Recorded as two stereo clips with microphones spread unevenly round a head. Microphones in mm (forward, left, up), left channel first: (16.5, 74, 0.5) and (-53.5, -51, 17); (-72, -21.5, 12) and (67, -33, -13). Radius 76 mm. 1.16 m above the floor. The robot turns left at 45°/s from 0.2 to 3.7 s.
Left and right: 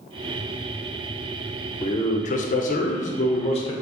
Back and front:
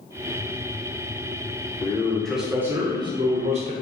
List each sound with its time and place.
1.8 s a man speaking: 100° left, 0.5 m; by 3.7 s 15° left, 0.5 m